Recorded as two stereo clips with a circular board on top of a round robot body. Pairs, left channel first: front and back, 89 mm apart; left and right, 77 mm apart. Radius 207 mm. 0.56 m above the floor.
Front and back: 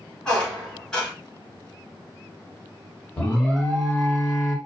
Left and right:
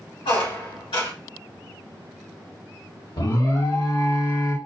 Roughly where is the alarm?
Left.